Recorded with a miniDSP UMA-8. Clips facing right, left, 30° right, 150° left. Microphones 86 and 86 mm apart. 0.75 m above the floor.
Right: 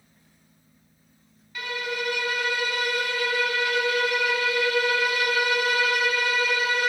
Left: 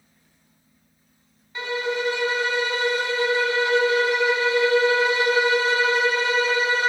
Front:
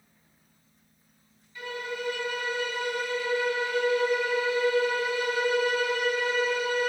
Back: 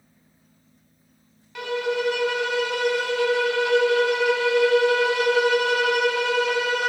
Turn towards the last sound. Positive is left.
turn(degrees=150)